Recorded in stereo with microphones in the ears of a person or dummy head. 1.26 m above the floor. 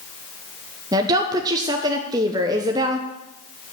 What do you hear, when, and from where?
0.9 s a woman speaking: 20° right (ahead or behind), 0.7 m